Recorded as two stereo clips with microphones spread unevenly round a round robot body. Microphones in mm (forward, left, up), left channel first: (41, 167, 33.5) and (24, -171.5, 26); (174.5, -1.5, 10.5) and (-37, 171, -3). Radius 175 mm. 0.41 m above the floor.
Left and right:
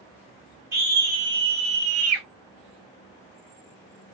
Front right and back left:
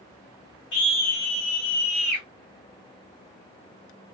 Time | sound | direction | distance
0.7 | a scream | 15° right | 2 m